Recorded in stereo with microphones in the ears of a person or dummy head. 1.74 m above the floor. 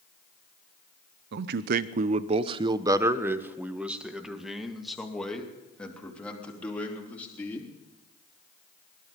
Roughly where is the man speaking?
Right.